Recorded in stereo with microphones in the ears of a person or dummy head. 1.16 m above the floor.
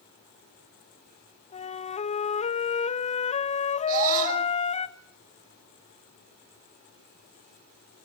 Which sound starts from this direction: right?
A scream, at 3.9 s.